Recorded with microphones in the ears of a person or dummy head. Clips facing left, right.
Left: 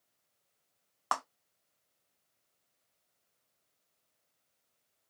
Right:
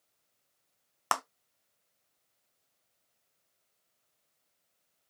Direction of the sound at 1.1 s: 40° right (ahead or behind).